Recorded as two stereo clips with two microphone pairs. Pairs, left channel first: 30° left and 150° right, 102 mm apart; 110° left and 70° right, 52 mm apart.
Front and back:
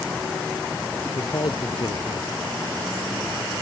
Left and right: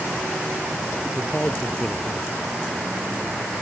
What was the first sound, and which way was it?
A man speaking, 60° left.